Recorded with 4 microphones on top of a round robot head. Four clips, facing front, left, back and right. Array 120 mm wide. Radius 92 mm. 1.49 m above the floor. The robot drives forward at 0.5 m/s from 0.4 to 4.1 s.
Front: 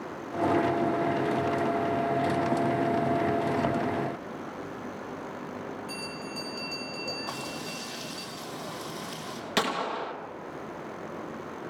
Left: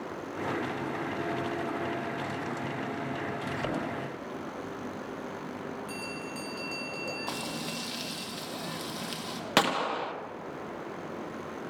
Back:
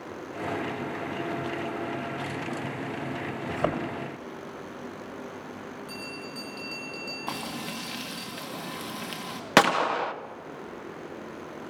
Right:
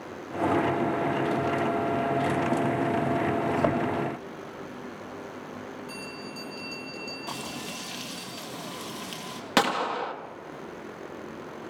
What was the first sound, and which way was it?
A thud, 145° right.